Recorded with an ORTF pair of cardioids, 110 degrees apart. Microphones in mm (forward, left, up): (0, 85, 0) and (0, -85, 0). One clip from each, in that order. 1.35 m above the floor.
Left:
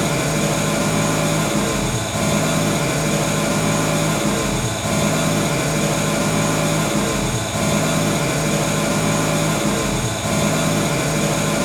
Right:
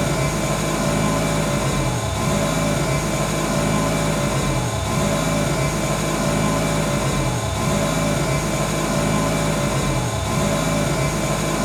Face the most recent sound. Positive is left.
turn(degrees=55)